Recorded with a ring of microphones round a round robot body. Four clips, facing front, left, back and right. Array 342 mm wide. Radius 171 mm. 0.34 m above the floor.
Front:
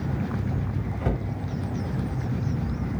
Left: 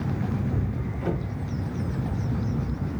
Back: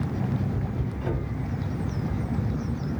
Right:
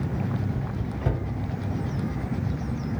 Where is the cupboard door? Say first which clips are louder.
Left 2 dB, front 3 dB; 20° right, 2 m.